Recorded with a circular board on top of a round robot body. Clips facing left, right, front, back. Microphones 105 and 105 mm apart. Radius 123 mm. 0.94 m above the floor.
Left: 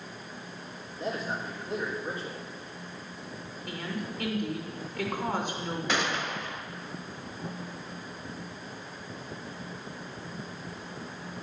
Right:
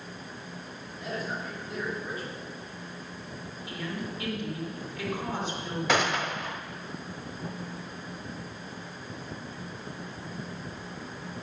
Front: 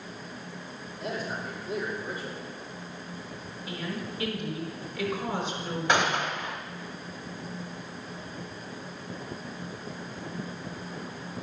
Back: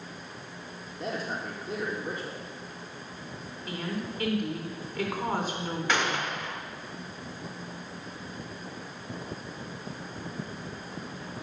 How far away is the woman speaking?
About 3.5 m.